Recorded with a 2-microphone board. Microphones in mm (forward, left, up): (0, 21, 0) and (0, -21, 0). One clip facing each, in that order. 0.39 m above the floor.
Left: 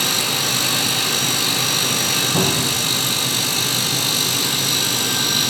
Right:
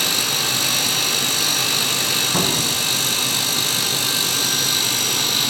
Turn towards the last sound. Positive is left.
turn(degrees=-30)  # may be behind; listen again after turning